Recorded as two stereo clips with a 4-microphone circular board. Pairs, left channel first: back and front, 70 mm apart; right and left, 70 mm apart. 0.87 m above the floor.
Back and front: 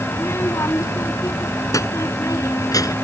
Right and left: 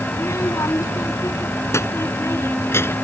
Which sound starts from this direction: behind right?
A child speaking, at 0.1 s.